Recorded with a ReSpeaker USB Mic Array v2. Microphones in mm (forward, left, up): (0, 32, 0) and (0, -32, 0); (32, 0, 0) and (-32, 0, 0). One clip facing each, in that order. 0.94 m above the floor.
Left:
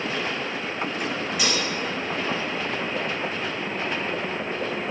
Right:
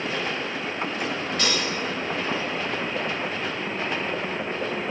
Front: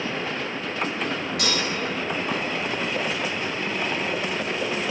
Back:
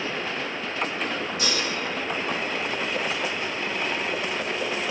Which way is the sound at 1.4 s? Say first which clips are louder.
Even, front 2 dB; 10° left.